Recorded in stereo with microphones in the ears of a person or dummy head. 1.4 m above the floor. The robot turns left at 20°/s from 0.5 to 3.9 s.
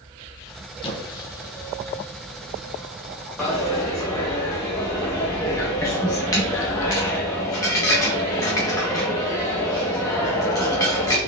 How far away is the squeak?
About 0.6 m.